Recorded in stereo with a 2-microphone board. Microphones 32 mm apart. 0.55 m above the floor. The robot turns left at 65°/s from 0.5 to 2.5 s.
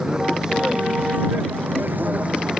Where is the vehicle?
25° right; by 2.6 s 155° right.